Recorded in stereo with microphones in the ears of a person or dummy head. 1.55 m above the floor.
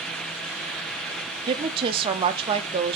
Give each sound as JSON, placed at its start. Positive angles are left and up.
{"t": 1.5, "sound": "a woman speaking", "side_deg": -30, "distance_m": 1.1}